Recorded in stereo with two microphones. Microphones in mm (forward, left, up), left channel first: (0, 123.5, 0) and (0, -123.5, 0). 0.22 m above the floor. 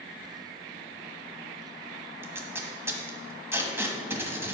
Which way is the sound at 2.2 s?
10° right (ahead or behind).